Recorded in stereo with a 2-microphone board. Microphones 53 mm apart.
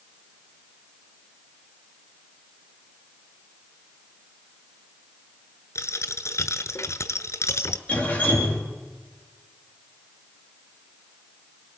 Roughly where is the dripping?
Left.